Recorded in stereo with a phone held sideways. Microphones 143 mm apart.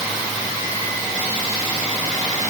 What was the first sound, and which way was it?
Only background noise.